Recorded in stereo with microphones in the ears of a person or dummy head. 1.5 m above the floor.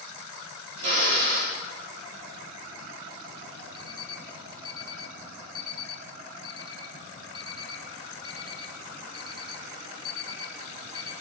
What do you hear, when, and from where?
0.8 s a drill: 55° right (ahead or behind), 3.5 m
3.7 s an alarm clock: 25° left (ahead or behind), 3.5 m